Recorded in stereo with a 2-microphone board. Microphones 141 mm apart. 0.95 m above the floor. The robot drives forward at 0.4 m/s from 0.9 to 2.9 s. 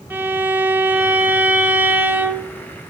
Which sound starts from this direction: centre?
A violin, at 0.1 s.